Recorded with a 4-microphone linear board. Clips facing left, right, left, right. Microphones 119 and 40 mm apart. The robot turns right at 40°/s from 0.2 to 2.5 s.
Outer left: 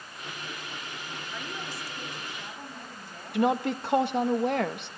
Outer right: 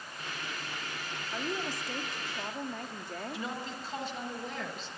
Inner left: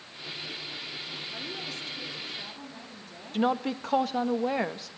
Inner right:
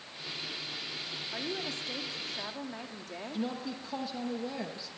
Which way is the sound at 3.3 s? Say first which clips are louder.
Outer left 13 dB, inner left 10 dB; 70° left (ahead or behind).